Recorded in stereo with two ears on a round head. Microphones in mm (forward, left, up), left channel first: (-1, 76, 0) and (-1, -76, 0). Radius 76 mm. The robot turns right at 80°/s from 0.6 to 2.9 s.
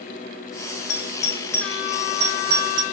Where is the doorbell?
65° left (ahead or behind), 1.5 m; by 2.8 s 80° right, 1.5 m.